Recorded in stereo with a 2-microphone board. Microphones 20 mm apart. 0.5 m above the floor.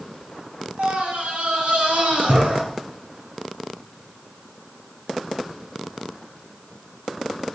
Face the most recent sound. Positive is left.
turn(degrees=-80)